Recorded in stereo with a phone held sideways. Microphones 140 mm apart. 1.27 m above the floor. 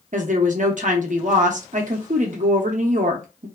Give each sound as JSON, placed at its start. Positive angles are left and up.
{"t": 0.1, "sound": "a woman speaking", "side_deg": -70, "distance_m": 0.6}